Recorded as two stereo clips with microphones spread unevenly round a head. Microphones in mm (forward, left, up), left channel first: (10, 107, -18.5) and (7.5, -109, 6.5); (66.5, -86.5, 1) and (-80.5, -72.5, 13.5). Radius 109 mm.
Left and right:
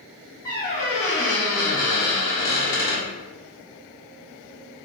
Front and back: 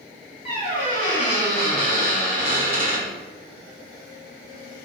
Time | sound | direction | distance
0.5 | a squeak | 20° left | 1.4 m